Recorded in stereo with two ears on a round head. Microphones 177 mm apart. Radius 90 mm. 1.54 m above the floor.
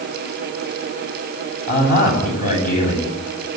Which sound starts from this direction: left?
A man speaking, at 1.7 s.